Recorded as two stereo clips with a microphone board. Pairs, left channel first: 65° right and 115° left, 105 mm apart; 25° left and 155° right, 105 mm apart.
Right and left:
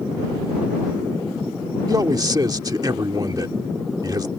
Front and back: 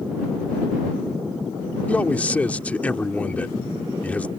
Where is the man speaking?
90° left.